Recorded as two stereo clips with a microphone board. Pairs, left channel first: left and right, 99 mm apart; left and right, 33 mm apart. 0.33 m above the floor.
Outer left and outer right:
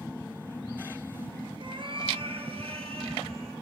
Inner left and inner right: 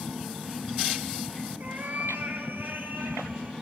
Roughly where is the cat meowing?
Right.